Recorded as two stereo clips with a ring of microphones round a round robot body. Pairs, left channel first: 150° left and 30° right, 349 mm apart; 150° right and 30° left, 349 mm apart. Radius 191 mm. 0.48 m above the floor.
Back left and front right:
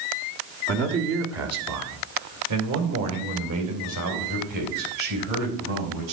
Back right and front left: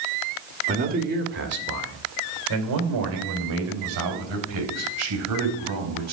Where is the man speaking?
20° right, 1.6 m; by 6.1 s 10° right, 5 m.